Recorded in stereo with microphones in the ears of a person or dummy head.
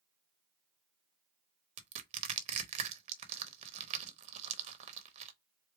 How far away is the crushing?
About 0.9 m.